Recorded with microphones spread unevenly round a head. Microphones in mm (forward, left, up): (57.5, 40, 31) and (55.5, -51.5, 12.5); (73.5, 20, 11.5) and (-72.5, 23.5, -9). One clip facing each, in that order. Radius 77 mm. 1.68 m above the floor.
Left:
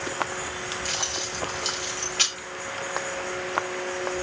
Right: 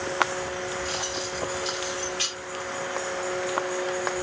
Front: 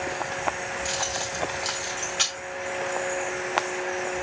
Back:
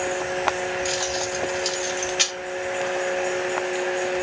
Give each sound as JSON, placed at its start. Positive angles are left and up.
{"t": 0.8, "sound": "keys jangling", "azimuth_deg": 110, "distance_m": 2.5}